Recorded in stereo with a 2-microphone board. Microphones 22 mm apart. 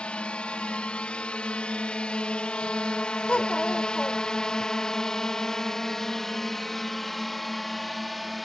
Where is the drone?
65° left (ahead or behind); by 8.4 s 5° left (ahead or behind).